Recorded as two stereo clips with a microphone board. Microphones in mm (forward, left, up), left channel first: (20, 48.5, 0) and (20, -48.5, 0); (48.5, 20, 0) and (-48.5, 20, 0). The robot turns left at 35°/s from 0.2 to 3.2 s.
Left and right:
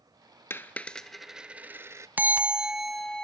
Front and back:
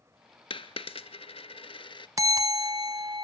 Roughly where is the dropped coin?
Ahead left.